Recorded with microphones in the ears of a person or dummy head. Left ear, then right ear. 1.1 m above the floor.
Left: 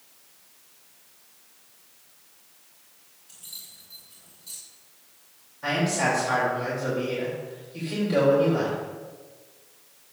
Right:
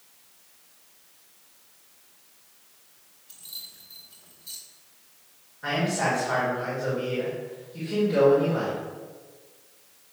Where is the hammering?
No hammering in this recording.